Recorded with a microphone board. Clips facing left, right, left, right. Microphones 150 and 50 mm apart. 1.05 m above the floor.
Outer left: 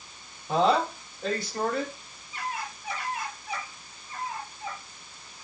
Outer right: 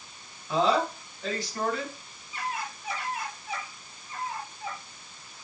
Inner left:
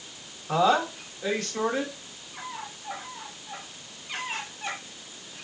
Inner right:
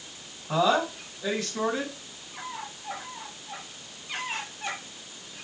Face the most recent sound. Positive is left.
turn(degrees=55)  # may be behind; listen again after turning